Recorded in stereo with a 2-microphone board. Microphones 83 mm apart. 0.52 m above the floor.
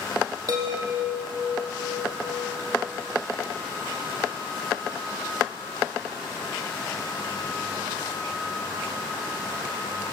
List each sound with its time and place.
0.5 s a chime: 45° right (ahead or behind), 4 m